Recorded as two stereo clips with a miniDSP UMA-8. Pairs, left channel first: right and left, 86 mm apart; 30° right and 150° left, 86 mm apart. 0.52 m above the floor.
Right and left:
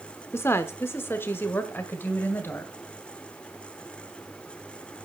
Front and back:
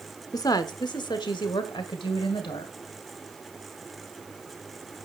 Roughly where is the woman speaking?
Ahead right.